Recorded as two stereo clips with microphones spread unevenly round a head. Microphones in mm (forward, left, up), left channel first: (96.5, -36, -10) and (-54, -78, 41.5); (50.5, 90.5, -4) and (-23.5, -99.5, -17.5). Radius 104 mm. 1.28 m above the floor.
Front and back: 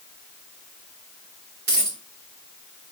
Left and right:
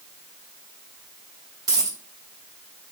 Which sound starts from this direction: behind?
A dropped coin, at 1.7 s.